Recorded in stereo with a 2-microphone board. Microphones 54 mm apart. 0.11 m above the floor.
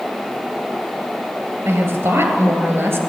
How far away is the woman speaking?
About 2 m.